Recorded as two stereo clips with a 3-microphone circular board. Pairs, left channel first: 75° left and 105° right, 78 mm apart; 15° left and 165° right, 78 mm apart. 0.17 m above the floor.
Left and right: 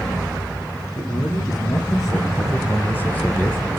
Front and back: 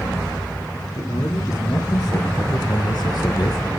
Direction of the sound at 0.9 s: 50° left.